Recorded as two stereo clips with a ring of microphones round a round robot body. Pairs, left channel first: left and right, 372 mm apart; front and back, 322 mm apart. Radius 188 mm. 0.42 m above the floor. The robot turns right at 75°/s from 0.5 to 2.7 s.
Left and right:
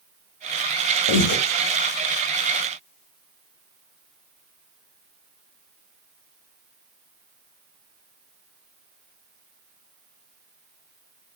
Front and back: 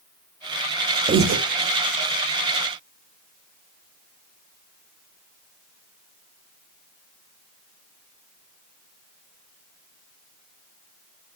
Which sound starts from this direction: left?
Breathing, at 1.1 s.